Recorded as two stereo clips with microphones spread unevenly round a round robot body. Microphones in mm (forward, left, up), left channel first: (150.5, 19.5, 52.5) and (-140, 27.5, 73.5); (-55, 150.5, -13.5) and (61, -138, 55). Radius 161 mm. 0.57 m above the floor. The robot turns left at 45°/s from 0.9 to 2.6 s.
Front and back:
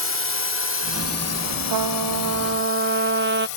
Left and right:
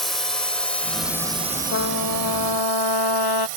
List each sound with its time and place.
0.0 s a drone: 30° left; by 3.6 s 40° right
1.7 s a trumpet: 165° left; by 3.5 s 125° left